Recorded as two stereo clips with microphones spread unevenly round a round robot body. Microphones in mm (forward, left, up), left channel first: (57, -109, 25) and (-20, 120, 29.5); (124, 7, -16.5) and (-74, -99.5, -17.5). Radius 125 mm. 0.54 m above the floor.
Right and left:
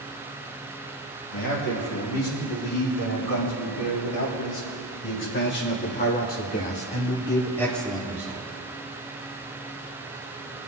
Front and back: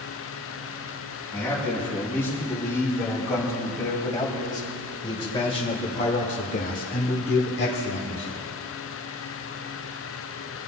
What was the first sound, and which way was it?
A man speaking, 55° right.